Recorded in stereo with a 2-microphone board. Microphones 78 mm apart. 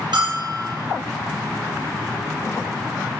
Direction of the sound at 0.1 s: 75° right (ahead or behind).